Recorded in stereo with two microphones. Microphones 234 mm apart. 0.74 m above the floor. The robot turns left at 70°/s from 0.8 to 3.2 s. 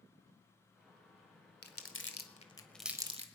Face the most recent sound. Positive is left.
turn(degrees=-30)  # may be behind; listen again after turning